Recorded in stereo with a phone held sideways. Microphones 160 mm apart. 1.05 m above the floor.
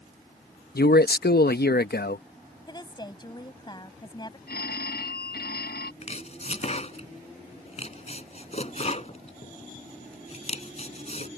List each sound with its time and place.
0.8 s a man speaking: 85° left
2.7 s a woman speaking: 25° left (ahead or behind)
4.5 s a phone ringing: 90° left
6.0 s chopping: 45° left (ahead or behind)